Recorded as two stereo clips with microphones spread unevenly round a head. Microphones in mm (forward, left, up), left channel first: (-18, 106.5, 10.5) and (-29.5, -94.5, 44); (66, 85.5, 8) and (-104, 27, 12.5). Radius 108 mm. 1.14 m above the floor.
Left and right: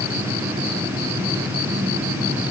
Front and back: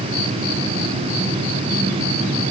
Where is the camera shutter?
I don't hear a camera shutter.